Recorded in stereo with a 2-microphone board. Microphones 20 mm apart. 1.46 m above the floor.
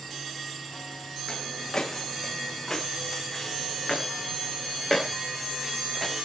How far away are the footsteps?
About 5 m.